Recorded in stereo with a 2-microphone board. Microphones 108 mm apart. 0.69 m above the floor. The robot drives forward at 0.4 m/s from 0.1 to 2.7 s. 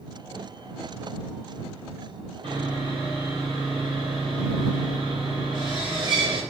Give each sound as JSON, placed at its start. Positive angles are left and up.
{"t": 2.4, "sound": "sawing", "side_deg": -45, "distance_m": 1.0}